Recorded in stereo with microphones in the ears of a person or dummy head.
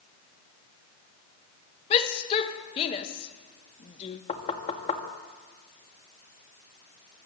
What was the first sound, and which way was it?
A shout, 35° left (ahead or behind).